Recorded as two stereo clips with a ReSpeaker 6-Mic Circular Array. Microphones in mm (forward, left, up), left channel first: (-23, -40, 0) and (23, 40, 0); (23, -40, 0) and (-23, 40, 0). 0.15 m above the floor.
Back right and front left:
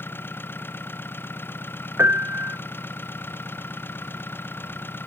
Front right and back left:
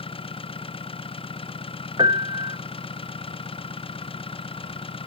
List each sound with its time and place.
0.0 s an engine running: 55° right
2.0 s a piano: 120° left